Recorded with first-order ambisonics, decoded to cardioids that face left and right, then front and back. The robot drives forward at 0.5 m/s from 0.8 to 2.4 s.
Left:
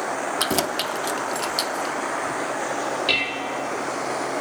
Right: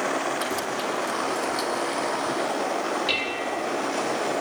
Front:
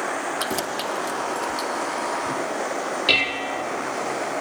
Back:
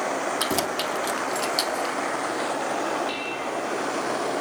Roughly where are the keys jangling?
Left.